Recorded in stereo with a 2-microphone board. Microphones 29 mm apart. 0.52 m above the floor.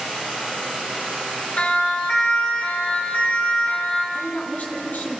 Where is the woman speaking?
80° left, 4.5 m.